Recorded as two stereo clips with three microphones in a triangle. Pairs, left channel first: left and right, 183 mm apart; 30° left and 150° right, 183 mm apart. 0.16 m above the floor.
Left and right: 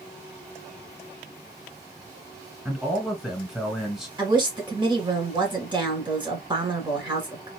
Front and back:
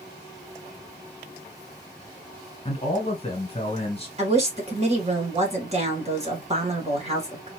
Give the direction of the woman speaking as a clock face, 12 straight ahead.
5 o'clock.